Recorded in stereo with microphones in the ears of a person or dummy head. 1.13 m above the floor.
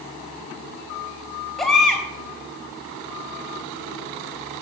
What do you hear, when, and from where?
1.6 s a baby crying: 5° left (ahead or behind), 3.5 m